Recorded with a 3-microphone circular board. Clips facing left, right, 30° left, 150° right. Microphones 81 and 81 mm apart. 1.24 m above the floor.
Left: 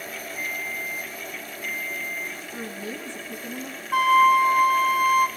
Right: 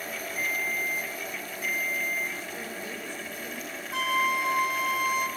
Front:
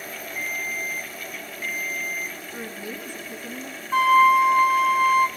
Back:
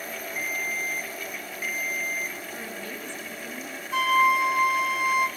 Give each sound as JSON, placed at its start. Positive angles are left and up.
{"t": 0.4, "sound": "a ringtone", "azimuth_deg": -70, "distance_m": 1.1}
{"t": 2.5, "sound": "a woman speaking", "azimuth_deg": 110, "distance_m": 1.8}
{"t": 3.9, "sound": "a flute", "azimuth_deg": 75, "distance_m": 1.0}